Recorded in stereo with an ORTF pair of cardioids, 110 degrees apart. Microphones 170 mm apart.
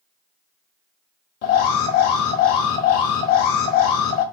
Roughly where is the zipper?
No zipper in this recording.